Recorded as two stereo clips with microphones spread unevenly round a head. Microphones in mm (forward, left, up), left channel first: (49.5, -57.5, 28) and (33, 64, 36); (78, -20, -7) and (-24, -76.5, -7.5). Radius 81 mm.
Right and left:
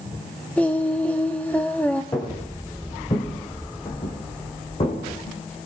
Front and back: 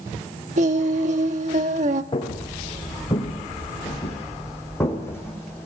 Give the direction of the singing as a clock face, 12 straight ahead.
6 o'clock.